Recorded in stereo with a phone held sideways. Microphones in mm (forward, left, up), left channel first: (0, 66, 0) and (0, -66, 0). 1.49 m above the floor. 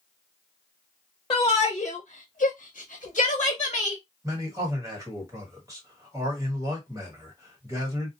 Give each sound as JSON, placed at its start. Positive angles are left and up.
{"t": 1.3, "sound": "a shout", "side_deg": 35, "distance_m": 0.8}
{"t": 4.2, "sound": "a man speaking", "side_deg": -25, "distance_m": 1.6}